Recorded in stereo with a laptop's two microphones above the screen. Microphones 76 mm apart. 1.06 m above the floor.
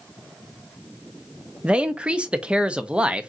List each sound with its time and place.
1.6 s a man speaking: 15° right (ahead or behind), 0.6 m